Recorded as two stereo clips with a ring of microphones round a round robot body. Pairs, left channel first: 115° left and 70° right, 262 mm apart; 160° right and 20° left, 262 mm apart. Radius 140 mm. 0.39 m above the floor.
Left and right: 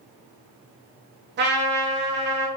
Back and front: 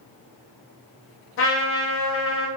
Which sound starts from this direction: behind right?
A trumpet, at 1.4 s.